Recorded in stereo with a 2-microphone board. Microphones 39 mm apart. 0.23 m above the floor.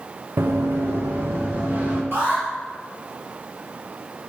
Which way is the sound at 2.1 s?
70° right (ahead or behind).